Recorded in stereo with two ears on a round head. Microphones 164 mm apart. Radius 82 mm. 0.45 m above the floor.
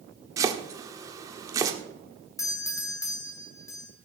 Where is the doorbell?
15° left (ahead or behind), 2.5 m.